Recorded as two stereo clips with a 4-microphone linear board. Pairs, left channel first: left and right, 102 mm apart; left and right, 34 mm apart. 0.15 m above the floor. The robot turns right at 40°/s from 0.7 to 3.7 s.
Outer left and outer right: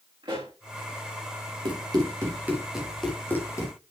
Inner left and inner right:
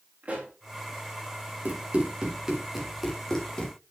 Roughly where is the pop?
Right.